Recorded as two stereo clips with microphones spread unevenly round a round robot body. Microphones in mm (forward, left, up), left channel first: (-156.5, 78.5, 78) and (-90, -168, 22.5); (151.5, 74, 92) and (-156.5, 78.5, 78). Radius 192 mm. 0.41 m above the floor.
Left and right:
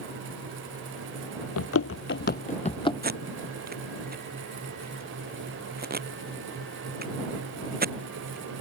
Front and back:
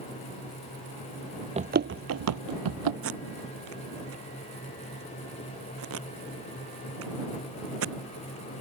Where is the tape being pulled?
130° right.